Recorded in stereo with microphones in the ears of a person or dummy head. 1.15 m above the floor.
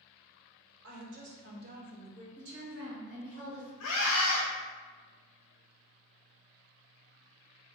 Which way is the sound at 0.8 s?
60° right (ahead or behind).